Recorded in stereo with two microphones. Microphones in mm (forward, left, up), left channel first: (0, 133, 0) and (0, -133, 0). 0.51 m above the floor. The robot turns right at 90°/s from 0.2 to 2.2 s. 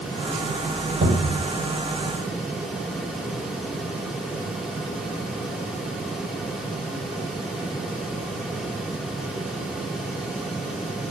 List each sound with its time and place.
1.0 s a cupboard door: 35° right, 4.5 m; by 1.5 s 5° left, 4.5 m